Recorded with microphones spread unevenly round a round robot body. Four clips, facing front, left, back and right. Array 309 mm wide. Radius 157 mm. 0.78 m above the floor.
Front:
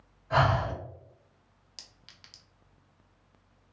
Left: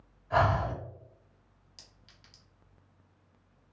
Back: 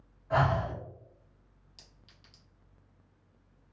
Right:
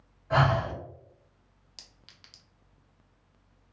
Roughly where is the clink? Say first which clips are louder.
Right 2 dB, front 4 dB; ahead right.